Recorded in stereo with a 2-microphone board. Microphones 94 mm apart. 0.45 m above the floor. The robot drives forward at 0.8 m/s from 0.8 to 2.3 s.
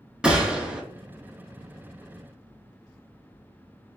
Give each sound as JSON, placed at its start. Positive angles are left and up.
{"t": 0.2, "sound": "a gunshot", "side_deg": -10, "distance_m": 0.9}